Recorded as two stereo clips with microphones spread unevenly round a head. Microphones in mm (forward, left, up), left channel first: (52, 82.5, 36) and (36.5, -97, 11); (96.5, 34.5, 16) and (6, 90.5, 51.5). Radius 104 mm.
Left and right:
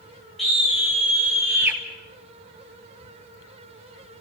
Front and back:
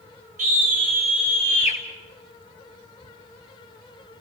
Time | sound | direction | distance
0.4 | a scream | 175° left | 7.5 m